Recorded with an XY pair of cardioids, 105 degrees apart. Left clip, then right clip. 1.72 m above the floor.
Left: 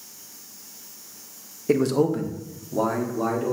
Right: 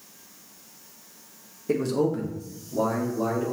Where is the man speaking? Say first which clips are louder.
Left 4 dB; 35° left, 1.0 m; by 3.5 s 25° left, 2.5 m.